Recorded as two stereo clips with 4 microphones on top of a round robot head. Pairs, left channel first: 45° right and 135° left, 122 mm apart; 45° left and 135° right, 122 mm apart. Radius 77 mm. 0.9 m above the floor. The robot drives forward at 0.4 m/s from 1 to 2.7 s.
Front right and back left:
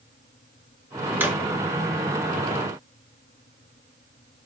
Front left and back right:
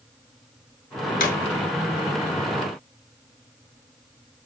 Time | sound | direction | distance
1.2 | a drawer | 60° left | 2.5 m